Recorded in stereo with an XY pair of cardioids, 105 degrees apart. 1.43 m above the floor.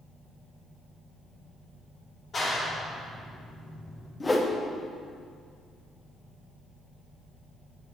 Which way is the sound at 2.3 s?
40° left.